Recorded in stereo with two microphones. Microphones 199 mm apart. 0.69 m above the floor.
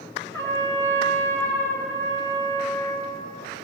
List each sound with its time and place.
0.3 s a trumpet: 15° left (ahead or behind), 4 m